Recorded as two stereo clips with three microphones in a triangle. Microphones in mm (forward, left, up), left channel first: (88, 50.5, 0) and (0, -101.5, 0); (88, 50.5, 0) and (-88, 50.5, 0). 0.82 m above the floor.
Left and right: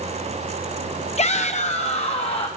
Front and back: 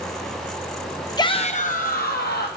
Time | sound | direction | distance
1.2 | a shout | 55° left | 0.6 m